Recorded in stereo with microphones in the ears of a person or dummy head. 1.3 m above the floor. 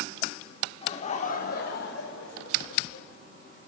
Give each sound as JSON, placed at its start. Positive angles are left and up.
{"t": 0.8, "sound": "laughter", "side_deg": 30, "distance_m": 1.5}